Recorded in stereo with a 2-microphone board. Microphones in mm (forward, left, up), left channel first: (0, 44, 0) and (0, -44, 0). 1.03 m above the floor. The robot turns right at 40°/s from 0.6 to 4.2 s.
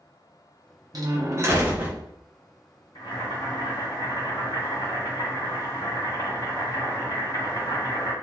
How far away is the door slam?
About 0.6 m.